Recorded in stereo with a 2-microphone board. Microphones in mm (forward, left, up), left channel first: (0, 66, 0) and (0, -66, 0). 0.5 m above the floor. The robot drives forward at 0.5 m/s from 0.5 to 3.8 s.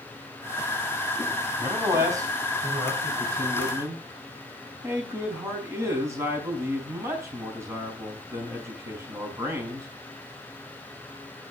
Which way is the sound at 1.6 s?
25° right (ahead or behind).